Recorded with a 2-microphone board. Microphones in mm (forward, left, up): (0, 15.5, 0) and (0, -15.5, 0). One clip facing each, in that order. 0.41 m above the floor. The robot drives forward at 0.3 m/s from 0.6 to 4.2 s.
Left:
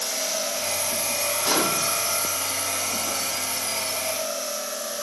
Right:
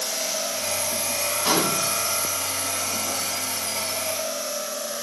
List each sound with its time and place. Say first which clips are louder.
1.4 s a gunshot: right 1 dB; 60° right (ahead or behind), 0.9 m; by 1.9 s 65° right (ahead or behind), 0.8 m